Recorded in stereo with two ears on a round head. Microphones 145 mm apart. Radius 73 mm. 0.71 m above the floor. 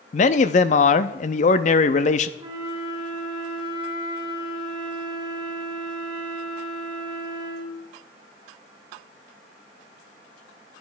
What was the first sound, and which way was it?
A man speaking, 45° left (ahead or behind).